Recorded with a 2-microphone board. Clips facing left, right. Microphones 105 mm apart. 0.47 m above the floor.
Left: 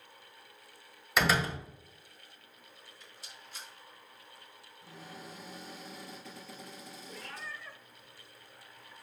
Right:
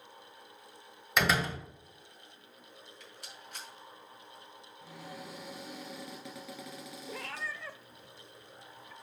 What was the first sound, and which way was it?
A door slam, centre (ahead or behind).